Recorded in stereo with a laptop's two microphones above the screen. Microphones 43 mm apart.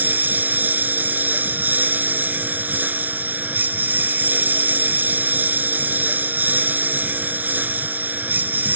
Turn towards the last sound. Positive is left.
turn(degrees=-40)  # may be behind; listen again after turning